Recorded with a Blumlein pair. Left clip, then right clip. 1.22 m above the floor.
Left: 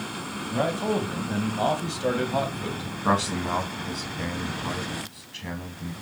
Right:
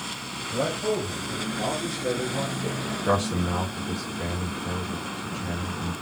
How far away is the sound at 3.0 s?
About 1.8 m.